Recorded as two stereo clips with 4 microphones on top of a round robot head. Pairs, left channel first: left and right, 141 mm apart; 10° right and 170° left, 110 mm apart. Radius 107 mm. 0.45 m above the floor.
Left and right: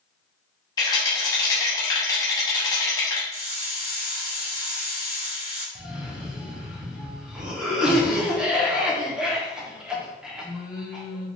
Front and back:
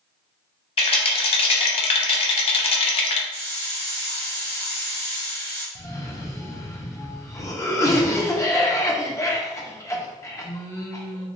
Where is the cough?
10° right, 0.8 m.